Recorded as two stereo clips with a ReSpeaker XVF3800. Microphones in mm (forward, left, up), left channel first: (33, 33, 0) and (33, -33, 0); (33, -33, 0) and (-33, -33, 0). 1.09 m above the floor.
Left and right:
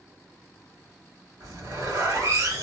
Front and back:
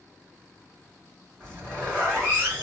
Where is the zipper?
110° right, 3 m.